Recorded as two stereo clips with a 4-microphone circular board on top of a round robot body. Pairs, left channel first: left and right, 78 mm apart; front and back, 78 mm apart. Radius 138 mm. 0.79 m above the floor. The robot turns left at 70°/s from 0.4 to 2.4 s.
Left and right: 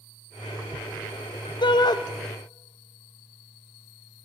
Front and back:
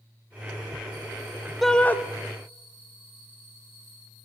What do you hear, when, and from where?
1.6 s a shout: 90° left, 0.7 m; by 2.0 s 65° left, 0.7 m